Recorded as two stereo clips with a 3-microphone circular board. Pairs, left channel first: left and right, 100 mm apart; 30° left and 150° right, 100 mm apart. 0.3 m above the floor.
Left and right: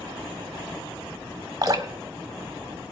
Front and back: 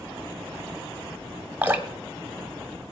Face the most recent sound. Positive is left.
turn(degrees=-90)